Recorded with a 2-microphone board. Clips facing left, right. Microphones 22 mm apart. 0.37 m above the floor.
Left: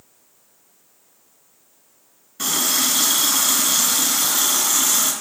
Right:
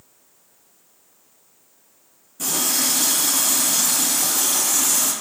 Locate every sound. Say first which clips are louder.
2.4 s a running tap: left 2 dB; 50° left (ahead or behind), 1.9 m